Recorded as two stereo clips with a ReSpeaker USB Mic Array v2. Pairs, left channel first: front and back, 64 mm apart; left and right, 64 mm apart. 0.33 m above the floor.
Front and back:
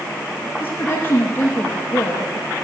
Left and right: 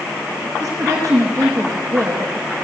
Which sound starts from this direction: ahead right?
A woman speaking, at 0.6 s.